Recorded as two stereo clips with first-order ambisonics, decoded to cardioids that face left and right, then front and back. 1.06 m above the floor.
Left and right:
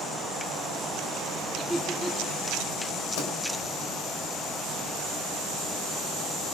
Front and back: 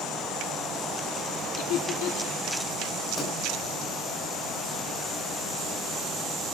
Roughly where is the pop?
Left.